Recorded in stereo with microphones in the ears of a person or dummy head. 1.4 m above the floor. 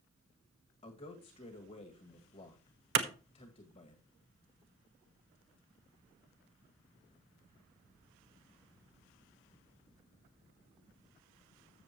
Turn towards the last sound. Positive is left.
turn(degrees=-70)  # may be behind; listen again after turning